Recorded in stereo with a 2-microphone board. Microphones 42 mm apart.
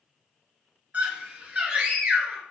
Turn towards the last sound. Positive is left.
turn(degrees=-40)  # may be behind; listen again after turning